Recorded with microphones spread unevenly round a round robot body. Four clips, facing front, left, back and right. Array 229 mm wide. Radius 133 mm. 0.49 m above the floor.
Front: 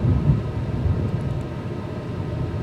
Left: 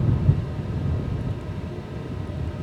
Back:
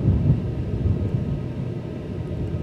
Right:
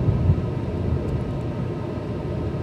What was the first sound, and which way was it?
Only background noise.